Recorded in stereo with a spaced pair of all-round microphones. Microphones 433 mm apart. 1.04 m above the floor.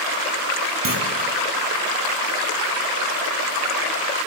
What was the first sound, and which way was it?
A clunk, 50° right (ahead or behind).